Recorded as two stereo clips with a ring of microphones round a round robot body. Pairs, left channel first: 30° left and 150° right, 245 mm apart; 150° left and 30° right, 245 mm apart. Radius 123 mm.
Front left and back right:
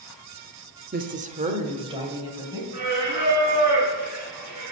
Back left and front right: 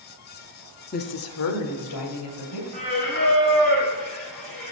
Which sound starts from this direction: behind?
A woman speaking, at 0.9 s.